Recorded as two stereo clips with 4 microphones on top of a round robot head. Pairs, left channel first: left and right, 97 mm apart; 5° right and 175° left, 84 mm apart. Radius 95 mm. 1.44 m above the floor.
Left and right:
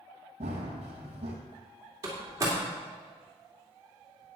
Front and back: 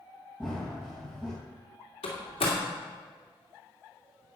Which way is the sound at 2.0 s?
25° right.